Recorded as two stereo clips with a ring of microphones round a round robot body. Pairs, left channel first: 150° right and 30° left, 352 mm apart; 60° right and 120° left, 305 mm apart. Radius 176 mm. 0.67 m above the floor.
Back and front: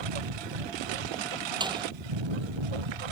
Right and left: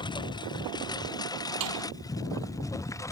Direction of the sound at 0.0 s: 15° left.